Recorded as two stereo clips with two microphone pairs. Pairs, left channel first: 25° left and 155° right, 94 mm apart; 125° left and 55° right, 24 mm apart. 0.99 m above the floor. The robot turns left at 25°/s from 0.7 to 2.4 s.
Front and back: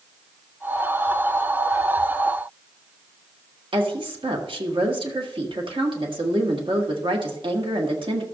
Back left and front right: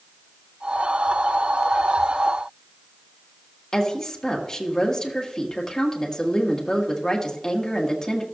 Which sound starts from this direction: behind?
A woman speaking, at 3.7 s.